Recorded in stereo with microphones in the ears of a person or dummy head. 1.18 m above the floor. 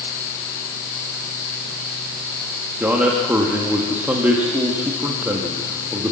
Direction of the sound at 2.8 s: 10° right (ahead or behind).